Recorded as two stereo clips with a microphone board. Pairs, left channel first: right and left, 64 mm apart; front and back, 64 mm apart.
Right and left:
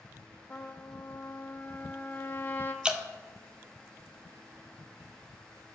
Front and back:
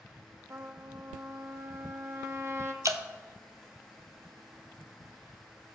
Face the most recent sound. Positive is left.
turn(degrees=160)